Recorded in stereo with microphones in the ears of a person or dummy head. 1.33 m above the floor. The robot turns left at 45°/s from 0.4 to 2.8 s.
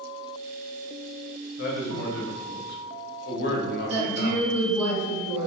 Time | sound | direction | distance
1.6 | a woman speaking | 115° left | 0.7 m
3.9 | a woman speaking | 20° right (ahead or behind) | 1.7 m